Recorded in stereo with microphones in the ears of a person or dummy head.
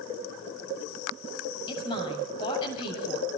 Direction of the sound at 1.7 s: 30° left (ahead or behind).